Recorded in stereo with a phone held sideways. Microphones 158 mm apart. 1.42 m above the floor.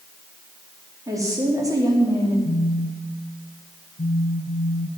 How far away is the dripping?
No dripping in this recording.